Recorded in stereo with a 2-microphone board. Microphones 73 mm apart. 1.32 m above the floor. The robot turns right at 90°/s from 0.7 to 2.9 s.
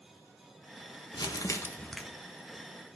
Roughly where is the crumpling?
Left.